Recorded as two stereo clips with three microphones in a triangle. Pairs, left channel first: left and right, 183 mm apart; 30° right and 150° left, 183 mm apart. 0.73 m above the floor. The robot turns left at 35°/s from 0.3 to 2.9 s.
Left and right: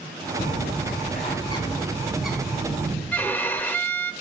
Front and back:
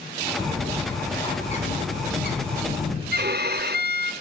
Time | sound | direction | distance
0.4 | a bird | 65° left | 3 m
3.1 | a violin | 170° left | 0.6 m